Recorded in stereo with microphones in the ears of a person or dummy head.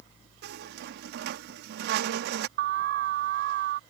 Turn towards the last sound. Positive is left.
turn(degrees=-65)  # may be behind; listen again after turning